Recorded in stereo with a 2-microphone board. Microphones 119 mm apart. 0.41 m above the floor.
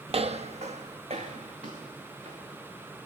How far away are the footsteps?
About 0.6 m.